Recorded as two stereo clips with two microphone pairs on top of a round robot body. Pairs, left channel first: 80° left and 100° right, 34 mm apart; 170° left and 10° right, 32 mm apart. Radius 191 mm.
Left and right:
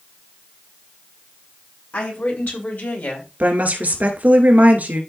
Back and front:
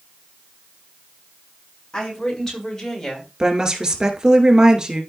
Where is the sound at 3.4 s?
75° right, 2.5 m.